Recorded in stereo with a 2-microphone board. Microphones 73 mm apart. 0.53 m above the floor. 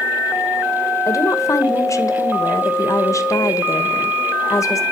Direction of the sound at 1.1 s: 40° left (ahead or behind).